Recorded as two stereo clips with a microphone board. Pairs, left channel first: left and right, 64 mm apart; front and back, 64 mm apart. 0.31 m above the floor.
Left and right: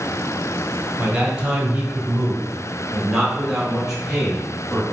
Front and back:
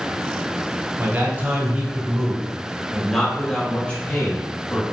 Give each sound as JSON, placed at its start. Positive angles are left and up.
{"t": 1.0, "sound": "a man speaking", "azimuth_deg": -155, "distance_m": 1.8}